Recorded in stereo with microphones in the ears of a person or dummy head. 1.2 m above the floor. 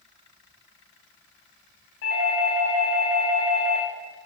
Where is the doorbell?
55° left (ahead or behind), 1.7 m.